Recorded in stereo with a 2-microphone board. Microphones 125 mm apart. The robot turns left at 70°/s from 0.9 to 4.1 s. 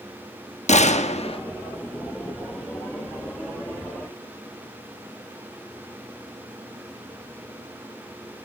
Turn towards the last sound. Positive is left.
turn(degrees=-140)